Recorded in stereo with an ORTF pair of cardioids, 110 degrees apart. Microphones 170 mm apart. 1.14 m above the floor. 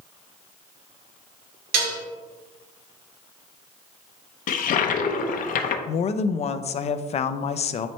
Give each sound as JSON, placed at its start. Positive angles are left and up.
{"t": 1.7, "sound": "dishes clattering", "azimuth_deg": -65, "distance_m": 2.0}
{"t": 4.5, "sound": "a toilet flushing", "azimuth_deg": 55, "distance_m": 0.9}
{"t": 5.9, "sound": "a woman speaking", "azimuth_deg": 40, "distance_m": 0.6}